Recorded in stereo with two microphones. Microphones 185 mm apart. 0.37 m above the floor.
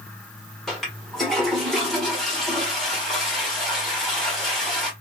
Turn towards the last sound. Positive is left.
turn(degrees=0)  # may be behind; listen again after turning